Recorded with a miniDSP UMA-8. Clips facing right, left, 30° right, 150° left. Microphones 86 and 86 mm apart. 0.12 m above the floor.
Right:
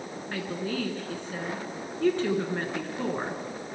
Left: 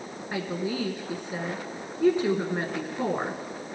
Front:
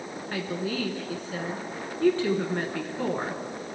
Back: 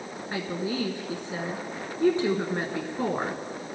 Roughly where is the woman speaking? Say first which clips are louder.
Left 2 dB, even; behind left.